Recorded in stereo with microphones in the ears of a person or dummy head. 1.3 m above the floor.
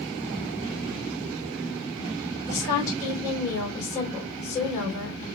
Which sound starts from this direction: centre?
A woman speaking, at 2.5 s.